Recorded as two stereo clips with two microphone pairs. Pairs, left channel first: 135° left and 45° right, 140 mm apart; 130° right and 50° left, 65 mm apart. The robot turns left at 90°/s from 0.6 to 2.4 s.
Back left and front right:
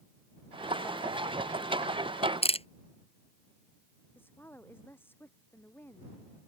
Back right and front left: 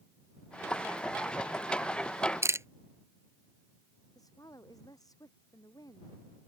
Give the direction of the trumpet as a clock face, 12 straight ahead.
I don't hear a trumpet.